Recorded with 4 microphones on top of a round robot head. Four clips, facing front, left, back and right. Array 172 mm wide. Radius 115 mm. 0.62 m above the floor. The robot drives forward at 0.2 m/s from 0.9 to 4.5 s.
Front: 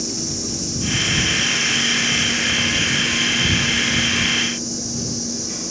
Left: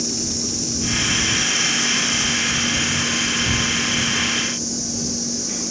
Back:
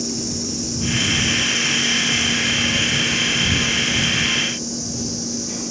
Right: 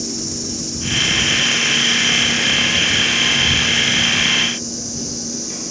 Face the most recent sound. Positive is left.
turn(degrees=110)